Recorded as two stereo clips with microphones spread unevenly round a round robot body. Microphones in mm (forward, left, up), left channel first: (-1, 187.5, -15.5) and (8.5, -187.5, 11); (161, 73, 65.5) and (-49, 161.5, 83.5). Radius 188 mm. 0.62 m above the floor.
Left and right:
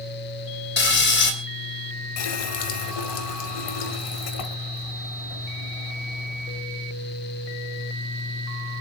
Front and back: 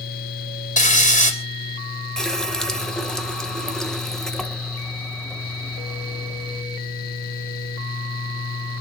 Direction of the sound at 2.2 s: 65° left.